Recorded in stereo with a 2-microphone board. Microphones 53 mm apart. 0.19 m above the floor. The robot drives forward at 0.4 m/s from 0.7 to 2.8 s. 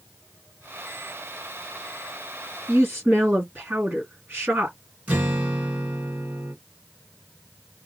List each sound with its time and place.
2.7 s a woman speaking: 35° right (ahead or behind), 2 m
5.1 s a guitar: 25° right (ahead or behind), 2.5 m